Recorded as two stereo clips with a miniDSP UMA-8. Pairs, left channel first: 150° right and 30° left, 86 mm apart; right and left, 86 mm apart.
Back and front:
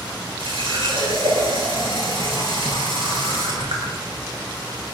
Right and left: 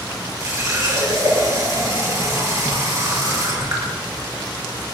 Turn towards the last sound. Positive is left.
turn(degrees=40)